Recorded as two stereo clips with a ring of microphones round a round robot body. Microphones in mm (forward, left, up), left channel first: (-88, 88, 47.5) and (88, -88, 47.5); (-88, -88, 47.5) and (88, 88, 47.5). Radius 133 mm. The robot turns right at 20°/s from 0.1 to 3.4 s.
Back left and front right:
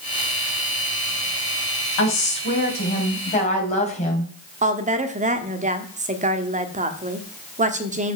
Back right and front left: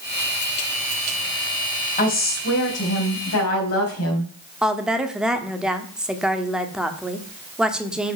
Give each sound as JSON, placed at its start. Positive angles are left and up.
{"t": 2.0, "sound": "a woman speaking", "azimuth_deg": 170, "distance_m": 3.5}
{"t": 4.6, "sound": "a woman speaking", "azimuth_deg": -40, "distance_m": 1.3}